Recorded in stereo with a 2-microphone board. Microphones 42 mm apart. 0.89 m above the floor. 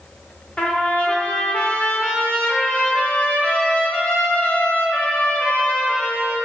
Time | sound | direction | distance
0.6 | a trumpet | 25° left (ahead or behind) | 0.6 m